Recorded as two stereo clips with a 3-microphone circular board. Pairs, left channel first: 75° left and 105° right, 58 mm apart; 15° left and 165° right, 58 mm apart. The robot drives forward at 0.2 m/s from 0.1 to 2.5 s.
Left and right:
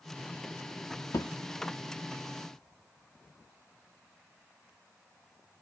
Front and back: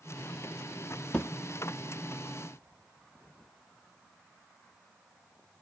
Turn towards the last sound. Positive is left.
turn(degrees=95)